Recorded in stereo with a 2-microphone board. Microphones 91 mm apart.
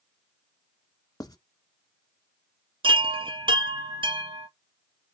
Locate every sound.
1.2 s writing: 45° left (ahead or behind), 0.6 m
2.8 s a chime: 70° right (ahead or behind), 0.6 m